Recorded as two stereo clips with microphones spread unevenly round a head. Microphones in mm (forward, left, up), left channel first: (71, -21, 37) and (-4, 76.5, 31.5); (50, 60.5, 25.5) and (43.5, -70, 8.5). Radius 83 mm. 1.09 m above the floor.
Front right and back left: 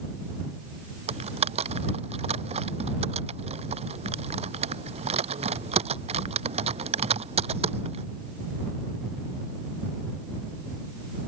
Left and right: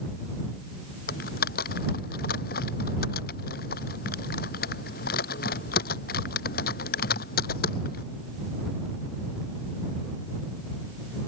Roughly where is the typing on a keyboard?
Left.